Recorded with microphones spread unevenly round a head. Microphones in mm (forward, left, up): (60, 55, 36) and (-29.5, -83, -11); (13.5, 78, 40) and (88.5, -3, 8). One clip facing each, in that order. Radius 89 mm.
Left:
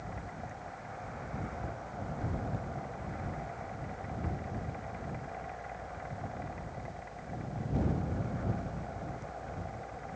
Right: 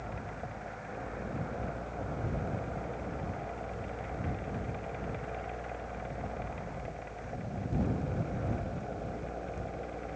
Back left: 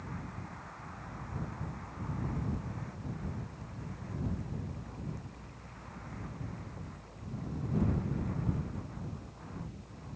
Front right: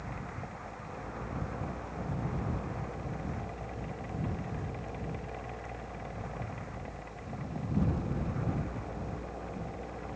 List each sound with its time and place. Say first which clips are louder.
0.0 s a fan: right 2 dB, front right 2 dB; 75° right